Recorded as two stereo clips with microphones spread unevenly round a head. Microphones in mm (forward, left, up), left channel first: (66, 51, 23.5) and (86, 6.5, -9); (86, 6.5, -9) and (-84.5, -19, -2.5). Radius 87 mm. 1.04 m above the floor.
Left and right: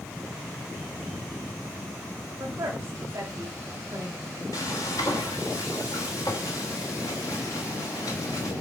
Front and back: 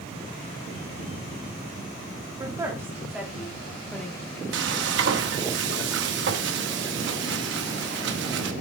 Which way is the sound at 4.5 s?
160° left.